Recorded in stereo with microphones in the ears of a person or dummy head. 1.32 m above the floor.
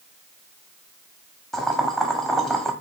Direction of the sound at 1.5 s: Centre (ahead or behind).